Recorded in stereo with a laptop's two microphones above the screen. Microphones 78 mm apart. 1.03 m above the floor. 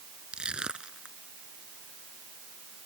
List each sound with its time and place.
0.3 s crushing: 10° right (ahead or behind)